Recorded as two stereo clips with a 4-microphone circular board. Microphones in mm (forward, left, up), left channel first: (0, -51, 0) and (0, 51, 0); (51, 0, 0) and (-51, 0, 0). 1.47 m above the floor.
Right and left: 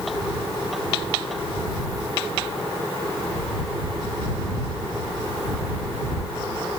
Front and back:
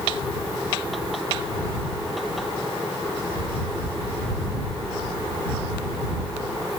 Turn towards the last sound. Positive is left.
No sound to turn to.